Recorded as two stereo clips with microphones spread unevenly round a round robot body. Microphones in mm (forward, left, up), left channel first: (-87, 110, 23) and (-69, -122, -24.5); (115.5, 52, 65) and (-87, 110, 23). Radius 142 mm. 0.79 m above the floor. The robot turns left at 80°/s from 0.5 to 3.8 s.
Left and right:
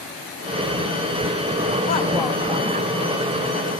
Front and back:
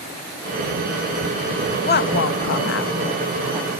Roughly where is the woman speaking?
Ahead left.